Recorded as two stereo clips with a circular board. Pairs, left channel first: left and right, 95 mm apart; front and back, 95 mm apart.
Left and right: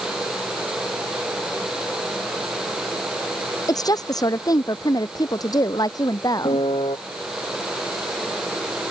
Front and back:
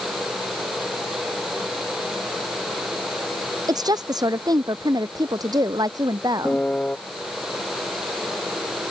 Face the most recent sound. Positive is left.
turn(degrees=75)